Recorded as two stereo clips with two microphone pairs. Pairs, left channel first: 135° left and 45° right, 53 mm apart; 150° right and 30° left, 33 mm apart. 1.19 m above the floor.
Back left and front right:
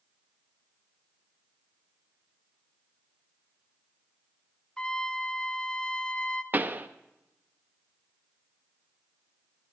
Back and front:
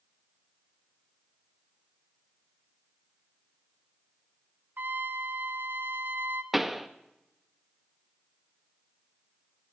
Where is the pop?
50° right, 0.5 m.